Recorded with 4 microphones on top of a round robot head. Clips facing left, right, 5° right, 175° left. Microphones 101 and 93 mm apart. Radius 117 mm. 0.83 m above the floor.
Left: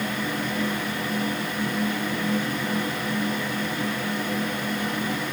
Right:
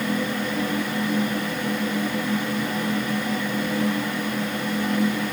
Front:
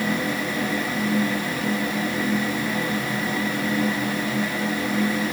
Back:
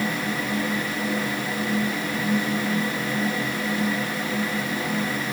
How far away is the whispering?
No whispering in this recording.